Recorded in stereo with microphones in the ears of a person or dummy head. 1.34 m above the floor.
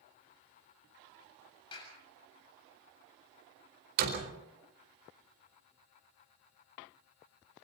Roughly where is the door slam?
Right.